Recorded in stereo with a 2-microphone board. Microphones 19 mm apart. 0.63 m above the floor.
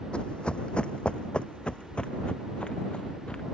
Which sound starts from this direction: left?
Running footsteps, at 0.1 s.